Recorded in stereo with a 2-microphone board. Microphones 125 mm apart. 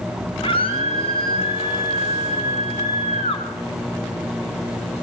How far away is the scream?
About 3 m.